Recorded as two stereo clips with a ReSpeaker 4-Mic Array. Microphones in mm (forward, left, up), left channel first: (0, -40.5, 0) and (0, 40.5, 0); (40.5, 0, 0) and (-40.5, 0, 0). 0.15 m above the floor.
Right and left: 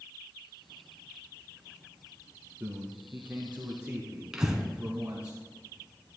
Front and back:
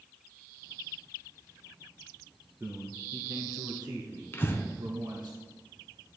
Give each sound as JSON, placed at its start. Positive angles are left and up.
{"t": 2.6, "sound": "a man speaking", "azimuth_deg": 130, "distance_m": 1.3}
{"t": 4.3, "sound": "breathing", "azimuth_deg": 15, "distance_m": 1.1}